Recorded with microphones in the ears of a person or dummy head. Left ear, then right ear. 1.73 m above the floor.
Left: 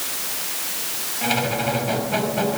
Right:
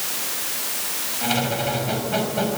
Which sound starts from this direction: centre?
A squeak, at 1.2 s.